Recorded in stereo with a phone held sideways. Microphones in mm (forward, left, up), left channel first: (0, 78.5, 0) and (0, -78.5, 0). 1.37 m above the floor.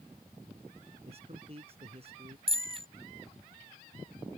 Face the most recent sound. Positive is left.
turn(degrees=-35)  # may be behind; listen again after turning